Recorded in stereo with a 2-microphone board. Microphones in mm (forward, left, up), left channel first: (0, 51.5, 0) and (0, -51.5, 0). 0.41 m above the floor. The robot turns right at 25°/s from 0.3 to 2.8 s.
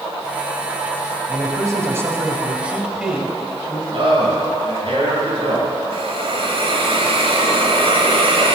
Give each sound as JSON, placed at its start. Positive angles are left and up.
{"t": 1.3, "sound": "a man speaking", "azimuth_deg": -45, "distance_m": 2.0}
{"t": 3.9, "sound": "a man speaking", "side_deg": -60, "distance_m": 4.5}
{"t": 5.9, "sound": "a hiss", "side_deg": -65, "distance_m": 1.4}